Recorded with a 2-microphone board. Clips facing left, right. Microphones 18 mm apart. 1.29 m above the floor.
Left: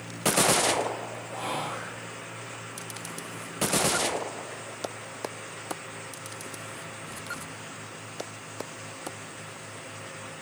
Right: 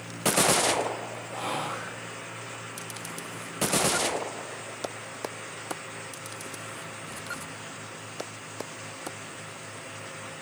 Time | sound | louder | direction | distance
1.3 | whispering | right 1 dB | 65° right (ahead or behind) | 1.2 m